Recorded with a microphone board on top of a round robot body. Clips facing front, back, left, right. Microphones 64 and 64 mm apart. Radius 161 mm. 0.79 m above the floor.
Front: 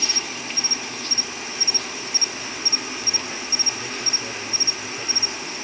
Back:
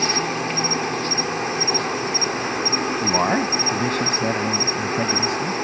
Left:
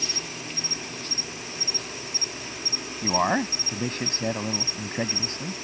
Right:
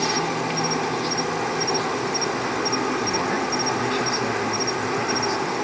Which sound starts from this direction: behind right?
An insect, at 0.0 s.